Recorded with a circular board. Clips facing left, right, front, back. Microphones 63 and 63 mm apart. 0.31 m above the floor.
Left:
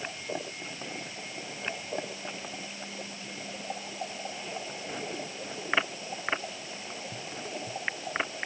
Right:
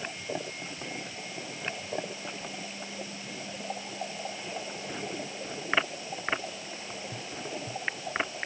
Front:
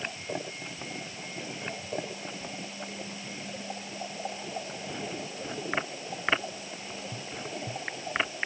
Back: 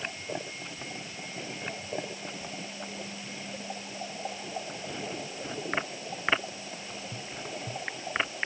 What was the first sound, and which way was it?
Only background noise.